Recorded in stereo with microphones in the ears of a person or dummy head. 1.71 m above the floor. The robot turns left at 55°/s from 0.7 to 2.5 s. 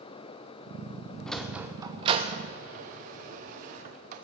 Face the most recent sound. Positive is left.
turn(degrees=-45)  # may be behind; listen again after turning